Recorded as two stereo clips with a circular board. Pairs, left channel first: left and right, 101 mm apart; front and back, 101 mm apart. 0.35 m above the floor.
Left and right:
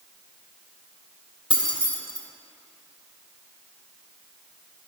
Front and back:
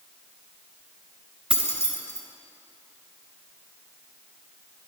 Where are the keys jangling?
100° left, 1.1 m.